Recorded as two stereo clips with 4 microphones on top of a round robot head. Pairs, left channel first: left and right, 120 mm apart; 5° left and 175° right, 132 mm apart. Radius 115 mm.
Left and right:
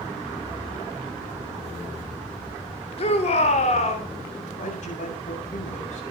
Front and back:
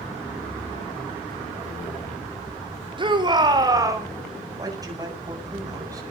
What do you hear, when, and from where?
3.0 s a shout: 130° left, 4 m; by 4.1 s 120° left, 4 m
4.5 s a man speaking: 120° left, 7.5 m